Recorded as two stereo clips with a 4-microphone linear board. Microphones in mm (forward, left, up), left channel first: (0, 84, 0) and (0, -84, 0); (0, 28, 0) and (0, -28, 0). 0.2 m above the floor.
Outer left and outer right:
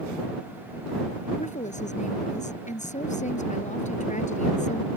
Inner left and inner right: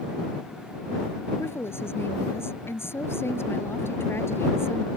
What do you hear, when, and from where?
1.4 s a woman speaking: 50° left (ahead or behind)